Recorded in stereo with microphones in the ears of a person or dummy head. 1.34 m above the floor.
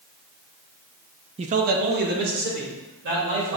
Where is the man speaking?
35° right (ahead or behind), 0.5 m; by 3.6 s 60° right (ahead or behind), 3.5 m.